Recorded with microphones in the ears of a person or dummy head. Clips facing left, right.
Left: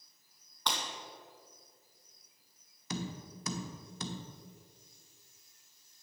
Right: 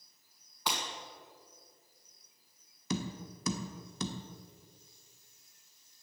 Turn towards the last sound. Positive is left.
turn(degrees=-75)  # may be behind; listen again after turning